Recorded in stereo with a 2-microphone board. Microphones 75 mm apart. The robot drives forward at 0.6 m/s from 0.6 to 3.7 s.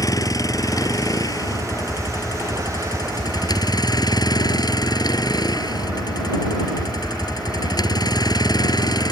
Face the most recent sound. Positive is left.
turn(degrees=65)  # may be behind; listen again after turning